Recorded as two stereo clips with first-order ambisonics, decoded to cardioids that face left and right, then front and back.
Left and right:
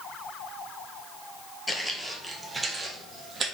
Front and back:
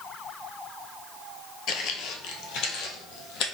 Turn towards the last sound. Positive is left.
turn(degrees=-25)